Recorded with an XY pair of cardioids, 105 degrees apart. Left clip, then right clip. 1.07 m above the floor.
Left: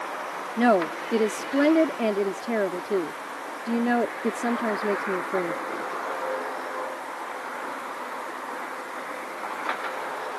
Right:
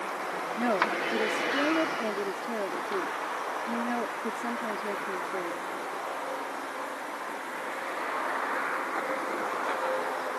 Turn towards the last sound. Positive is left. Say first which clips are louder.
# left 6 dB
turn(degrees=55)